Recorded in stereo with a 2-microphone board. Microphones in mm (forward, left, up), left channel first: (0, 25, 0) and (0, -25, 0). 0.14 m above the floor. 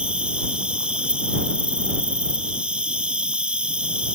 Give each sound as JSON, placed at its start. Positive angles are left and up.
{"t": 0.0, "sound": "an insect", "side_deg": -20}